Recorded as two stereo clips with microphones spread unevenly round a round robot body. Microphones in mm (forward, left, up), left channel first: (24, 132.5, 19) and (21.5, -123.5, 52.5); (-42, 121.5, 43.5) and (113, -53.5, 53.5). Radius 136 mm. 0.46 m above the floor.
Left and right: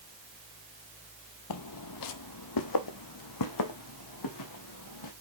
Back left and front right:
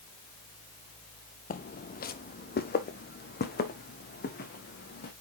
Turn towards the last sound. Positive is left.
turn(degrees=80)